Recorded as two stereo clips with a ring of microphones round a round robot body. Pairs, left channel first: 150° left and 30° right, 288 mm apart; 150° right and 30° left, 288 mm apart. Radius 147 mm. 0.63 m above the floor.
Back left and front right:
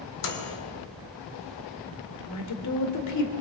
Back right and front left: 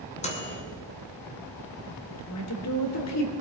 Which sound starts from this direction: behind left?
A microwave, at 0.2 s.